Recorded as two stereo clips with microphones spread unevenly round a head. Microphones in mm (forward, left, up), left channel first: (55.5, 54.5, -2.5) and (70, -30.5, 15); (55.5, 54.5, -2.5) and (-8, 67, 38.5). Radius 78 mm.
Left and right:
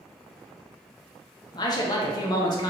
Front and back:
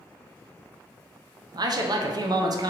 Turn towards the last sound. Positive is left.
turn(degrees=125)